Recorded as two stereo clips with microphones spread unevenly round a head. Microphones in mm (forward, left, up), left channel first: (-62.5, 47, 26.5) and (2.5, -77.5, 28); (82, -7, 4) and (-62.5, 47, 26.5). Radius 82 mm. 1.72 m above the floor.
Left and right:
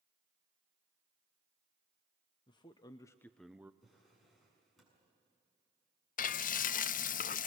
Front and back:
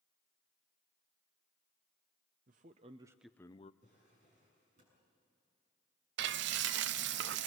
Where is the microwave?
I don't hear a microwave.